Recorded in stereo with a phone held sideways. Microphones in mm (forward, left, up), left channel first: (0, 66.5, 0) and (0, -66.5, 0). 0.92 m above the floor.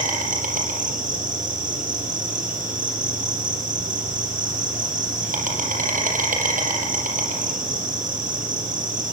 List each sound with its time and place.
0.0 s an insect: 80° right, 5 m